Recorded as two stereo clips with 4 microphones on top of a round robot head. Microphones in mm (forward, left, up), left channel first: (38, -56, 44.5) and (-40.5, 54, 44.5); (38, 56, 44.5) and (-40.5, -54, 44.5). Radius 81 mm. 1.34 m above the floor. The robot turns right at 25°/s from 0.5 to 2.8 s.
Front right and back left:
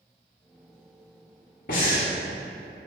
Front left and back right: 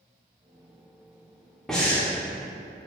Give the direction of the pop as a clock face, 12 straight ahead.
No pop in this recording.